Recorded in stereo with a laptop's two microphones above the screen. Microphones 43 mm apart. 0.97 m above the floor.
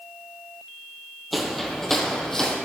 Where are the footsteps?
Centre (ahead or behind), 1.4 m; by 2.5 s 15° left (ahead or behind), 2.0 m.